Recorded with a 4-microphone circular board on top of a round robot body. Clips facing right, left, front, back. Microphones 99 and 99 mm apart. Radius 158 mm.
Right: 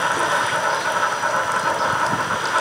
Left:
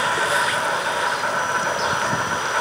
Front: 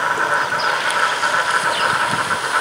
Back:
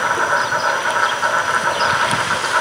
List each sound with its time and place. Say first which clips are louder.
0.0 s an insect: right 1 dB, back 1 dB; 100° right, 6.5 m